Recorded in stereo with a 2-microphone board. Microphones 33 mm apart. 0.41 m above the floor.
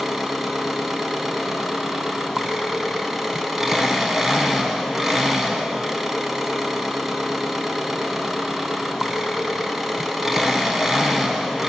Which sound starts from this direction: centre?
An engine running, at 0.0 s.